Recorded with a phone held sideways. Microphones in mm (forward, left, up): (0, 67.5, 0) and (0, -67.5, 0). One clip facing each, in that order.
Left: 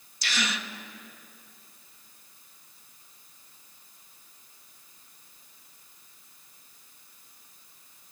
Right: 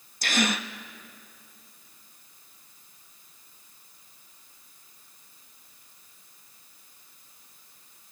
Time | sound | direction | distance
0.2 | a gasp | 50° right (ahead or behind) | 1.0 m